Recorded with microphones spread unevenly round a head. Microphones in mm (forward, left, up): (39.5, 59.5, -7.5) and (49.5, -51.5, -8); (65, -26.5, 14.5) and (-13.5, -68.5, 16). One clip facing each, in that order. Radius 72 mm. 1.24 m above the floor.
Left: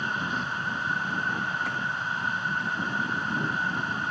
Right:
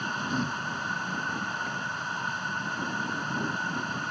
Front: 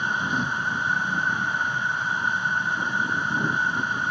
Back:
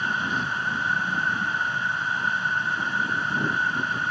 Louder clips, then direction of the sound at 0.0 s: Even, front 1 dB; 35° right.